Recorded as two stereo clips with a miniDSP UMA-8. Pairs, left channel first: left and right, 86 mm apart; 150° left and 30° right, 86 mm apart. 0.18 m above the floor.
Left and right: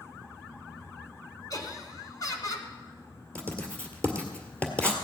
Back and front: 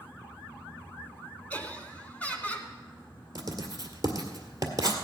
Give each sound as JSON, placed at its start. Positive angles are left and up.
{"t": 1.5, "sound": "laughter", "azimuth_deg": 90, "distance_m": 2.0}
{"t": 3.4, "sound": "writing", "azimuth_deg": 15, "distance_m": 1.7}